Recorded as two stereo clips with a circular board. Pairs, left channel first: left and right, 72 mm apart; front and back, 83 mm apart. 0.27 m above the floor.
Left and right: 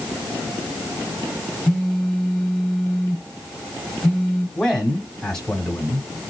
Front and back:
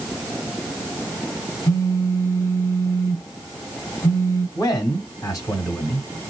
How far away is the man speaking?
About 1.9 m.